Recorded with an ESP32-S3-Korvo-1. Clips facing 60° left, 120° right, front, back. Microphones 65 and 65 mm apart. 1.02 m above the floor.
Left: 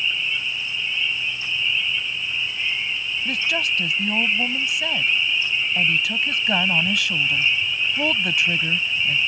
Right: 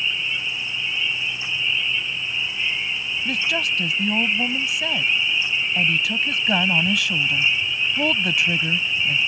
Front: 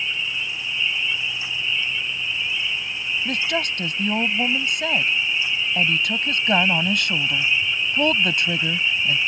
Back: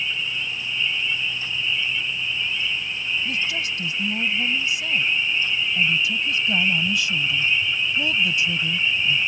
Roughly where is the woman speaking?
Ahead right.